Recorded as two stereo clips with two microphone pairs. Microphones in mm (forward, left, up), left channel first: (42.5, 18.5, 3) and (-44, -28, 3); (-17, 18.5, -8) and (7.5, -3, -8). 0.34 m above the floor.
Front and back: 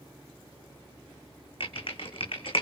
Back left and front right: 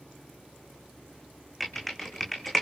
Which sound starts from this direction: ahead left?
Typing on a keyboard, at 1.6 s.